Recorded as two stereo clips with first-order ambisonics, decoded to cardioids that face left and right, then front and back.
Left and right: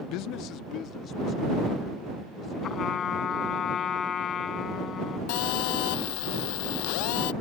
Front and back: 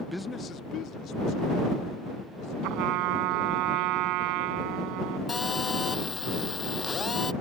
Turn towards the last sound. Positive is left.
turn(degrees=75)